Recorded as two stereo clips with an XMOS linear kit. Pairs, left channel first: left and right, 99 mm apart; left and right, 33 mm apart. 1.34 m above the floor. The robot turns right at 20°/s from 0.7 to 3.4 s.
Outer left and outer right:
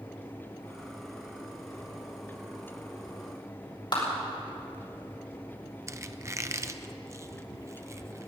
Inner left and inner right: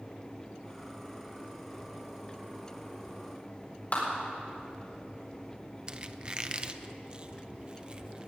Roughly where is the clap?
Left.